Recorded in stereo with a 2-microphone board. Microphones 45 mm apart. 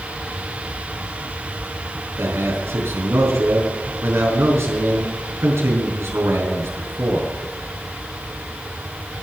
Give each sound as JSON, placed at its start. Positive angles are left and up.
{"t": 2.2, "sound": "a man speaking", "side_deg": -70, "distance_m": 4.5}